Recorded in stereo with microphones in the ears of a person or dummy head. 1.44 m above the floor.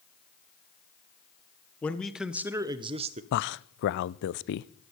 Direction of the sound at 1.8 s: 10° left (ahead or behind).